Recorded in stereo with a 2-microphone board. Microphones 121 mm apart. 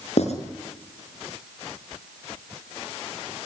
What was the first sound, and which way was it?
Writing, 65° left (ahead or behind).